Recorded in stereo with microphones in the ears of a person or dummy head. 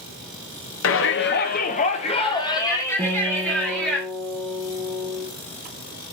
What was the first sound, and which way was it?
A shout, 60° left (ahead or behind).